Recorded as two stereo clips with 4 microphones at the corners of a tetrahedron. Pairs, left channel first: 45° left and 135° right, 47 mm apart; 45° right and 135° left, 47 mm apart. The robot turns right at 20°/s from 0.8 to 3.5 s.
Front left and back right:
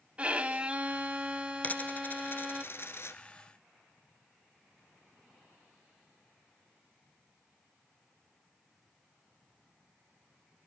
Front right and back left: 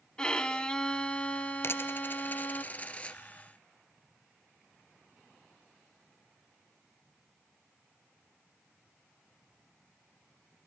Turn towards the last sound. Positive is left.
turn(degrees=25)